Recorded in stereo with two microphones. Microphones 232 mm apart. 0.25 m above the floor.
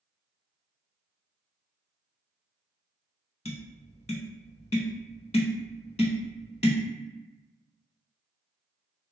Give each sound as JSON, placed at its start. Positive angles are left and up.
{"t": 3.5, "sound": "tapping", "side_deg": 30, "distance_m": 0.6}